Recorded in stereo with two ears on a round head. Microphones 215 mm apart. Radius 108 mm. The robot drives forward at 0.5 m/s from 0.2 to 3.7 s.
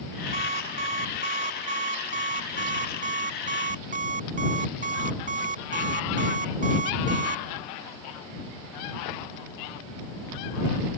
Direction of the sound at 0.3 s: 30° right (ahead or behind).